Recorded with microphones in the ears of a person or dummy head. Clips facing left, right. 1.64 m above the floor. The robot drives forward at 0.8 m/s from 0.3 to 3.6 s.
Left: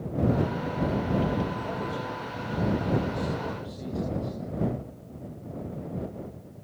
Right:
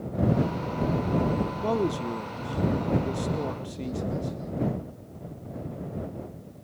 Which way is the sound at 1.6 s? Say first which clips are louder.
Right 6 dB; 75° right (ahead or behind).